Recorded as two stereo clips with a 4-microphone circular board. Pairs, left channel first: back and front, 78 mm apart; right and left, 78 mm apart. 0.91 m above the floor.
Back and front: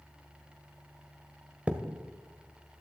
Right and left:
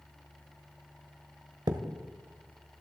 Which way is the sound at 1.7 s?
70° left.